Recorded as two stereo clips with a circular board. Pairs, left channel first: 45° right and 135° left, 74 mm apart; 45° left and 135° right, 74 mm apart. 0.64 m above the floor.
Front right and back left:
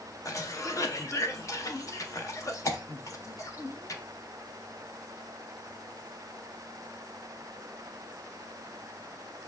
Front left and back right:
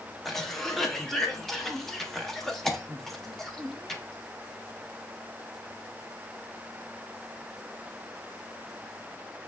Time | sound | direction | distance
0.2 | a cough | 40° right | 0.7 m